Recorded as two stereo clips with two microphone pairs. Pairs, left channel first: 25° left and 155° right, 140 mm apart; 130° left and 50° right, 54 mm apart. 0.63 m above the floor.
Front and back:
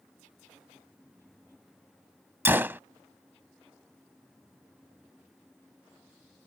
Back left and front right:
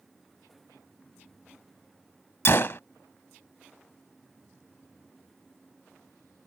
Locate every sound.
2.5 s a gunshot: 135° left